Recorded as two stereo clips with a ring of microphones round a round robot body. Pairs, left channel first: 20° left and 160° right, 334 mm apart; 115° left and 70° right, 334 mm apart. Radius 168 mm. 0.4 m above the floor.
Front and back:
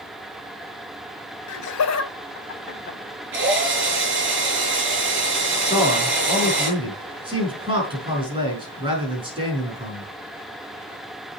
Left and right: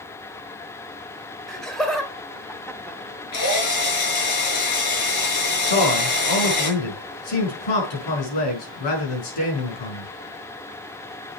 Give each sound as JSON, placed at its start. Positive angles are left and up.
{"t": 1.5, "sound": "laughter", "azimuth_deg": 25, "distance_m": 1.8}
{"t": 3.3, "sound": "a drill", "azimuth_deg": 145, "distance_m": 5.5}
{"t": 5.7, "sound": "a man speaking", "azimuth_deg": 125, "distance_m": 5.0}